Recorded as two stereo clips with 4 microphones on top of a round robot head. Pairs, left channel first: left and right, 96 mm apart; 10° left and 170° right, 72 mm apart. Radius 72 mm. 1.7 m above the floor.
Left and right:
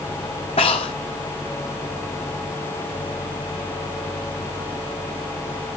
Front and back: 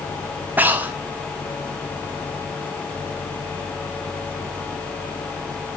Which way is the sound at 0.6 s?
130° left.